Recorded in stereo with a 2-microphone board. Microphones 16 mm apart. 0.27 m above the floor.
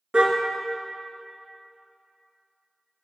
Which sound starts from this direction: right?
A car horn, at 0.1 s.